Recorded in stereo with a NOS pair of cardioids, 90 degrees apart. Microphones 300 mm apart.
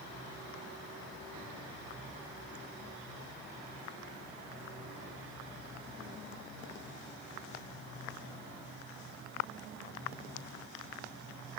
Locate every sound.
Only background noise.